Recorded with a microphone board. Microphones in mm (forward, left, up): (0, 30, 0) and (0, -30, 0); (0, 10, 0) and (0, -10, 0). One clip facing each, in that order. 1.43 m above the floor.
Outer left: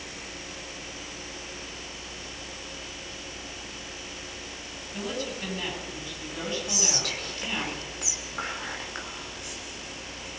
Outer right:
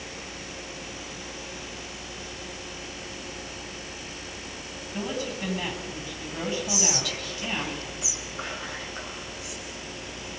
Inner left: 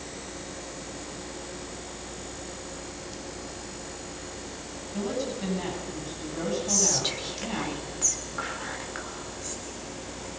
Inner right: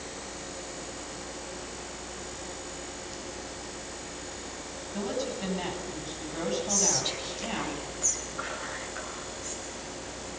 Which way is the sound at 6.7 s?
60° left (ahead or behind).